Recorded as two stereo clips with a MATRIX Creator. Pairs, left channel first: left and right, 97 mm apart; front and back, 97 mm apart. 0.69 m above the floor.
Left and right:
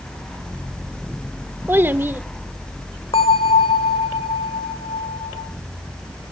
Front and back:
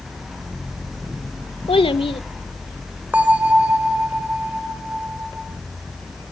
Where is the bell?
105° left, 1.5 m.